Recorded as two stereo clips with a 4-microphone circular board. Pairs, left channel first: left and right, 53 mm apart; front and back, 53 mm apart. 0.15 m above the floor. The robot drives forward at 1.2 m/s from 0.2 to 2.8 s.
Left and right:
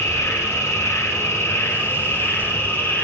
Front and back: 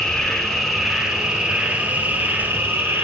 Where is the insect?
80° left, 3 m; by 3.1 s 135° left, 4 m.